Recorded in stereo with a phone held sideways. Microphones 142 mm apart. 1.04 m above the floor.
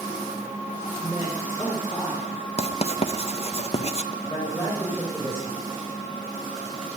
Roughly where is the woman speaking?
Centre.